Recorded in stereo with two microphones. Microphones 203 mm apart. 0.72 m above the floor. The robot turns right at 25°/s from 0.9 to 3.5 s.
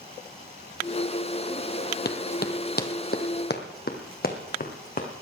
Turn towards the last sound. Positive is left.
turn(degrees=40)  # may be behind; listen again after turning